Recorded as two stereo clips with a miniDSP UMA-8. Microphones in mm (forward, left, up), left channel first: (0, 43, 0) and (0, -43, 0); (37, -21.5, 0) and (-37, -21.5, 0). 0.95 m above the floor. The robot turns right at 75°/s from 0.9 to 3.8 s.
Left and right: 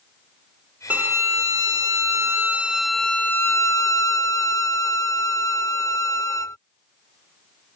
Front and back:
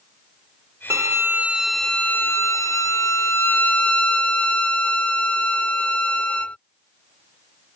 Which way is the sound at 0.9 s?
150° right.